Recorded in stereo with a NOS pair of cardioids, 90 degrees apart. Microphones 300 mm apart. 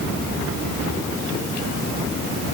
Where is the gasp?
I don't hear a gasp.